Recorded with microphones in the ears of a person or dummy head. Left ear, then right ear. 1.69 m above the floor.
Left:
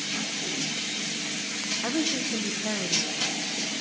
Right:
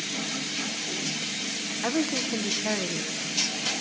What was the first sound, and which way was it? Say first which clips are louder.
A woman speaking: right 2 dB; 15° right (ahead or behind).